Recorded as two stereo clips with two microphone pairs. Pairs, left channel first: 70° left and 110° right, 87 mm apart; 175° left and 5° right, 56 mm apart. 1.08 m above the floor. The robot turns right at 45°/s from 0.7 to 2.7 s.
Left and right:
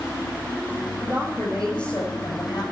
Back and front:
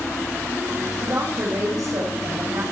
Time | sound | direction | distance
1.0 | a woman speaking | 45° right | 7.5 m